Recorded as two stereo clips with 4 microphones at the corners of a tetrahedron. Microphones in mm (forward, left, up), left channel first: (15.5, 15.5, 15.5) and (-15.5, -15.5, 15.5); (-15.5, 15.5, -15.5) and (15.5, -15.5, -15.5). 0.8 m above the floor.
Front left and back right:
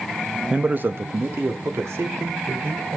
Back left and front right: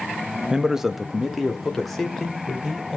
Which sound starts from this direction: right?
A man speaking, at 0.5 s.